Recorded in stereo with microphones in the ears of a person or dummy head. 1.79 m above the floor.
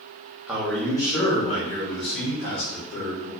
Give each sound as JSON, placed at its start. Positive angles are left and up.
{"t": 0.5, "sound": "a man speaking", "side_deg": -5, "distance_m": 1.1}